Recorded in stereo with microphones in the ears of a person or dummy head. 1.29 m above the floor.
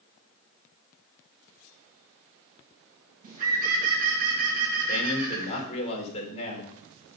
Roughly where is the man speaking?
Left.